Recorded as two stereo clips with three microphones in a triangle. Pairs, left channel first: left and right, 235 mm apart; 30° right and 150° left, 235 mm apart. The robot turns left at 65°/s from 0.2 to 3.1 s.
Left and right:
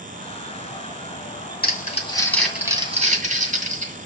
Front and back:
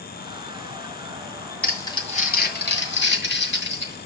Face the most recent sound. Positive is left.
turn(degrees=-40)